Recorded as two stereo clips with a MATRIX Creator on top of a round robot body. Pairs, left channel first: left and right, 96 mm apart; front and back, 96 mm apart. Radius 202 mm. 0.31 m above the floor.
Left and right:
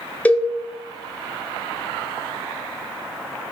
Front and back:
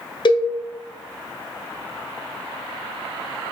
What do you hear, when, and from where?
0.2 s a cowbell: 20° left, 0.9 m